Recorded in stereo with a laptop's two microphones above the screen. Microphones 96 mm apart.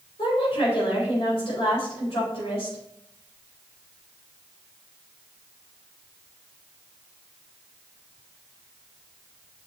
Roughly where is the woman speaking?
Left.